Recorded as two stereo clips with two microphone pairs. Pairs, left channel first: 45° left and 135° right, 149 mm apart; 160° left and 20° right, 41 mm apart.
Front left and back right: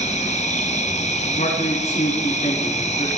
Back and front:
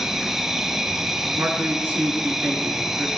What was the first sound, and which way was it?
An insect, 55° left.